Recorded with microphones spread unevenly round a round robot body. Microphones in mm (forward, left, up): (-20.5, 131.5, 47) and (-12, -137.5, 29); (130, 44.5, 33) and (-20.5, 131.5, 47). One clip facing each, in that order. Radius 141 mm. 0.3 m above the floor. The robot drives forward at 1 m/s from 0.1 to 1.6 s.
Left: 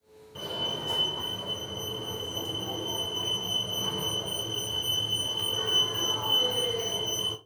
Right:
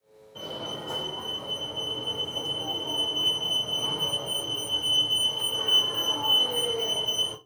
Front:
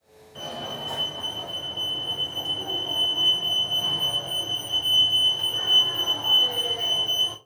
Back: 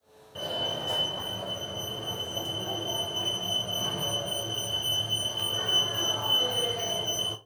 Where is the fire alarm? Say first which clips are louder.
Even, back 1 dB; 110° left, 2 m; by 7.4 s 145° left, 3 m.